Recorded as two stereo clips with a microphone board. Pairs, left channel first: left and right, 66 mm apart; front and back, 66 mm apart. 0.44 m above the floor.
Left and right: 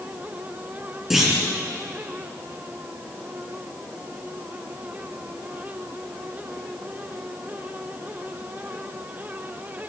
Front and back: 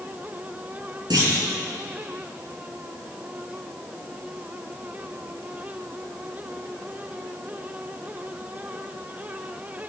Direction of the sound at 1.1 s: 170° right.